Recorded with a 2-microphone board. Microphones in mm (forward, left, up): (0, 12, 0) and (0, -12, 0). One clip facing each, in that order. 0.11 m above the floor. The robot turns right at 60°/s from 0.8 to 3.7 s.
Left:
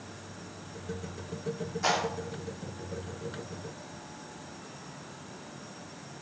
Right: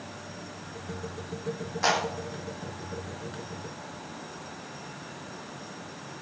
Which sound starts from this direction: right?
A clap, at 1.8 s.